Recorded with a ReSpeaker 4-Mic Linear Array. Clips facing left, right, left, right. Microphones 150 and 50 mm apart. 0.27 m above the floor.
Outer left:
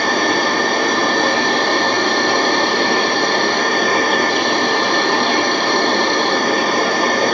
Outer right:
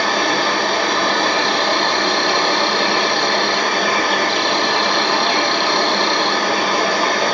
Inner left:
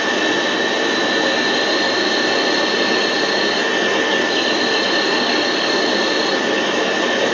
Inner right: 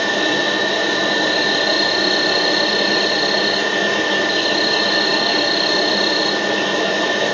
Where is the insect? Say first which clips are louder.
Outer left 1 dB, even; 45° left (ahead or behind), 2 m.